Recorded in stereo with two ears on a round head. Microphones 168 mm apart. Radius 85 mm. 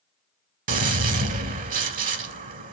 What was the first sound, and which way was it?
A gunshot, 40° right (ahead or behind).